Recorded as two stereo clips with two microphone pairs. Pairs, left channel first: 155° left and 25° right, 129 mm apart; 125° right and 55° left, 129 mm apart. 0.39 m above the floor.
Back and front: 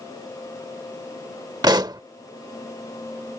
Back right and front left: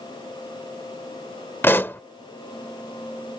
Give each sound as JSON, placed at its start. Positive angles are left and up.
{"t": 1.6, "sound": "a pop", "azimuth_deg": -60}